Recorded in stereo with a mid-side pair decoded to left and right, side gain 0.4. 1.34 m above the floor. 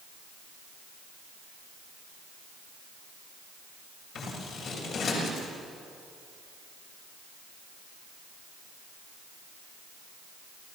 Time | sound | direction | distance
4.2 | scissors | 70° left | 6.5 m